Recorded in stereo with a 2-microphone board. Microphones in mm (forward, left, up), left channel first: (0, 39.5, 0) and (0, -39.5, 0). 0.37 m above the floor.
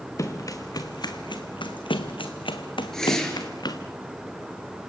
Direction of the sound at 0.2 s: 40° left (ahead or behind).